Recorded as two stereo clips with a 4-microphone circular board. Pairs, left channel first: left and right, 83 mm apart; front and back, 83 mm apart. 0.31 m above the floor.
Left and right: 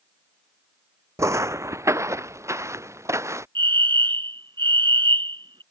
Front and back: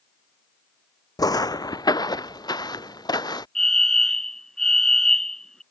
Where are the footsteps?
40° right; by 3.5 s 35° right.